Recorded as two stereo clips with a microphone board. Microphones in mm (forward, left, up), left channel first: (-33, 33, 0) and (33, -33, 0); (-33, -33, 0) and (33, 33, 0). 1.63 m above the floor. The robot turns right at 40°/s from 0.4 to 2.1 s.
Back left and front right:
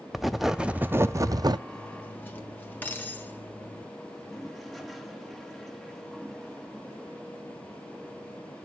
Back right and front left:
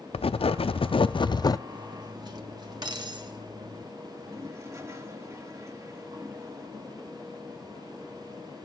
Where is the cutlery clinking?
50° left, 1.5 m; by 3.9 s 70° left, 1.5 m.